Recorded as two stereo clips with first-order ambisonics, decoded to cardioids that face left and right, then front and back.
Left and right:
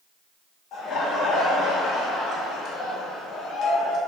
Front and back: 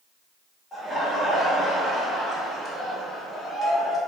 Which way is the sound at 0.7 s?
80° left.